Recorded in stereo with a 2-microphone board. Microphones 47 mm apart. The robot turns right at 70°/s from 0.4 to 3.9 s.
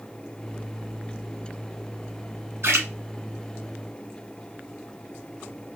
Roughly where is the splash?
Right.